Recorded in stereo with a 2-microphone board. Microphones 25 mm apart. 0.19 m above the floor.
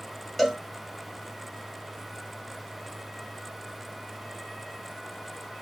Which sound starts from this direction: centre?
A cowbell, at 0.4 s.